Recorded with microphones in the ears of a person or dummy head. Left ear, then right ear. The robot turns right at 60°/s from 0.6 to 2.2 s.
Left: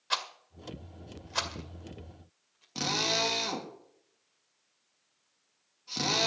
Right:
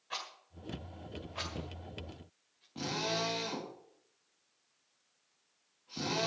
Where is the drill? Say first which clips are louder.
Left 6 dB; 75° left (ahead or behind), 3 m.